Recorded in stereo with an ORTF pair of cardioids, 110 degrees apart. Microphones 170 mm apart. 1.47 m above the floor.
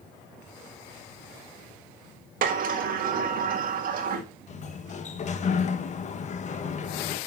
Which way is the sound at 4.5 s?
40° left.